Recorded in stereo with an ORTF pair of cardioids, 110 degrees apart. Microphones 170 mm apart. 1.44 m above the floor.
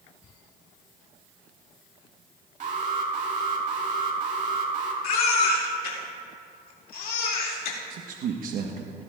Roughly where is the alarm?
Ahead right.